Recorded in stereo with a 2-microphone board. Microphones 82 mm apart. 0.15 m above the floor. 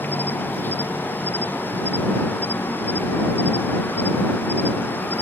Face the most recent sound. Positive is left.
turn(degrees=25)  # may be behind; listen again after turning